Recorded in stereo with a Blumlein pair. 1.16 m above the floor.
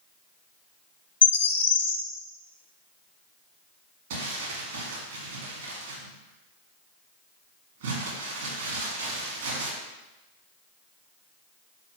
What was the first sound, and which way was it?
A bird, 65° left.